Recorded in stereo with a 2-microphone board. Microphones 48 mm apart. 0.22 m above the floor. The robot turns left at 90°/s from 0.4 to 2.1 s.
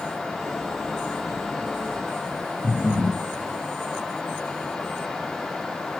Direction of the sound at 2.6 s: 15° right (ahead or behind).